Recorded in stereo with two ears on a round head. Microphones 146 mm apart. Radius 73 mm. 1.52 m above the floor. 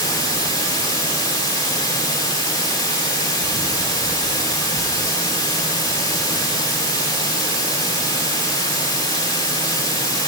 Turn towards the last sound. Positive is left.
turn(degrees=25)  # may be behind; listen again after turning